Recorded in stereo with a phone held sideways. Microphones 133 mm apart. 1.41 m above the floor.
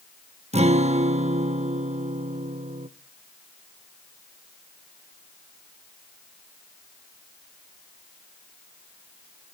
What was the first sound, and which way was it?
A guitar, 55° right (ahead or behind).